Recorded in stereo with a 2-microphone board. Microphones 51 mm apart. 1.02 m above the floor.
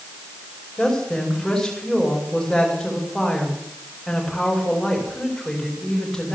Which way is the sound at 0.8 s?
5° left (ahead or behind).